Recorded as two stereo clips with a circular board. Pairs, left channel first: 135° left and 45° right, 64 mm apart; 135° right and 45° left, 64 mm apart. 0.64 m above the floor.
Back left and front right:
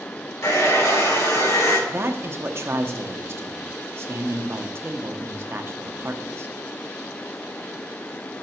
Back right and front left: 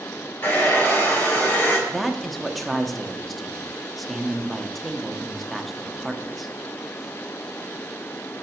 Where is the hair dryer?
170° left, 3.5 m.